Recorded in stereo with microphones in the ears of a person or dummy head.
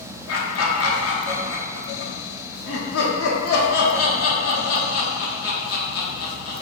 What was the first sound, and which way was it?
Laughter, 70° left (ahead or behind).